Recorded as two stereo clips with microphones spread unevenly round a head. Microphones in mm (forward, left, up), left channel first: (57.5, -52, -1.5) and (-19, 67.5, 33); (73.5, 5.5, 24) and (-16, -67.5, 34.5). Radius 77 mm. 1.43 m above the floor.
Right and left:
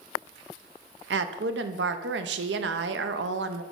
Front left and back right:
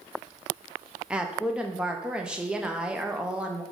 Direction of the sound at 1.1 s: 135° left.